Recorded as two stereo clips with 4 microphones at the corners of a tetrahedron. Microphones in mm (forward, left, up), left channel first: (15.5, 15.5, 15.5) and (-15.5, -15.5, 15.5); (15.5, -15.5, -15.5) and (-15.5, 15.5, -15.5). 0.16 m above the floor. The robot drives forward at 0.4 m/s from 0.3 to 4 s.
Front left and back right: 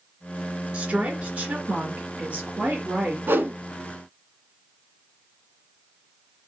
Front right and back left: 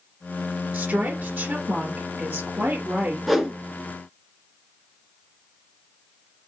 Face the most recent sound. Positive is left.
turn(degrees=-150)